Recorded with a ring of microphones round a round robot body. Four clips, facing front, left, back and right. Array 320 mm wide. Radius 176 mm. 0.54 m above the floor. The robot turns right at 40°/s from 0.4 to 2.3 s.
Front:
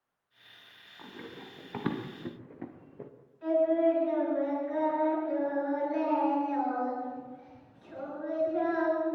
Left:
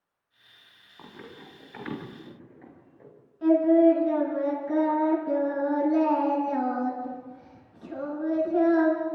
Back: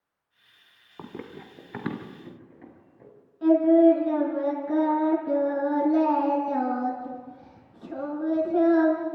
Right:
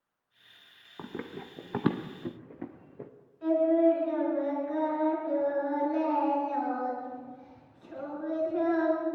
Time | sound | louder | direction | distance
1.0 | running footsteps | right 6 dB, back 6 dB | 140° right | 3 m
3.4 | singing | left 5 dB, back 8 dB | 150° left | 8 m